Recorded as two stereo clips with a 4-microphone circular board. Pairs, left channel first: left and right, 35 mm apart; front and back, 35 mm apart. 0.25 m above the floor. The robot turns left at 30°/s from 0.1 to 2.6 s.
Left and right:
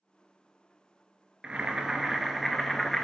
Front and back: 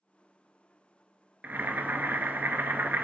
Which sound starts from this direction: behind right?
Boiling, at 1.4 s.